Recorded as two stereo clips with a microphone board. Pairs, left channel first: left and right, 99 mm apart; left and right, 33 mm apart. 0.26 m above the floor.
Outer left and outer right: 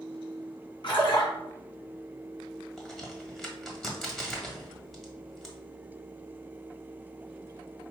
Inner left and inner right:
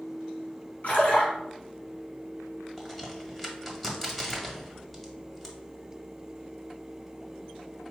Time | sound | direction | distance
0.8 | a splash | 50° left (ahead or behind) | 2.5 m
2.8 | a crack | centre (ahead or behind) | 1.2 m